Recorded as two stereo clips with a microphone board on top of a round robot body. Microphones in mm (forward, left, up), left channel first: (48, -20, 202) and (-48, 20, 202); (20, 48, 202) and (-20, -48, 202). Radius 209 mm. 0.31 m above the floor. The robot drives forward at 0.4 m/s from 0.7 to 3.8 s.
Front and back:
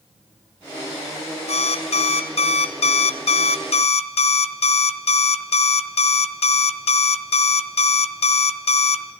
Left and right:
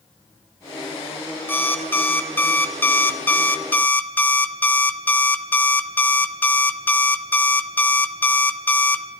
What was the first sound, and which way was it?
An alarm clock, 5° right.